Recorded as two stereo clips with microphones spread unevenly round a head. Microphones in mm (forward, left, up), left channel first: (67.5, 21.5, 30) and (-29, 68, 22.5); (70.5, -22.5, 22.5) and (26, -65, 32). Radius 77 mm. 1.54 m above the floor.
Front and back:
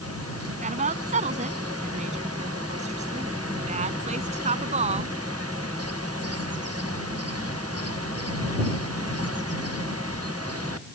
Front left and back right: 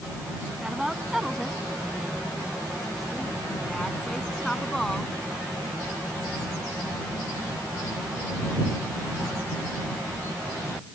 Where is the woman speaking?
140° left; by 5.2 s 130° left.